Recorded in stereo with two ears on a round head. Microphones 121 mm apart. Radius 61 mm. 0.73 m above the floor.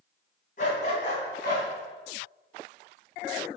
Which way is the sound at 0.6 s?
70° left (ahead or behind).